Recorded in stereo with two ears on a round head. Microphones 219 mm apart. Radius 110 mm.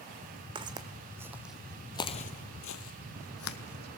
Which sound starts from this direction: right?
Footsteps, at 0.6 s.